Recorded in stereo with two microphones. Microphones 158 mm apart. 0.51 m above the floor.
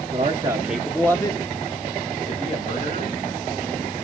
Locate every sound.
0.1 s a man speaking: 35° right (ahead or behind), 0.9 m; by 3.2 s 45° left (ahead or behind), 2.5 m